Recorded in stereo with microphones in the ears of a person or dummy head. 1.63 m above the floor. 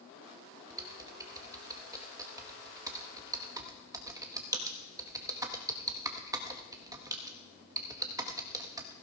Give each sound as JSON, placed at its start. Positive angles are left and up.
{"t": 0.7, "sound": "typing on a keyboard", "side_deg": -15, "distance_m": 1.0}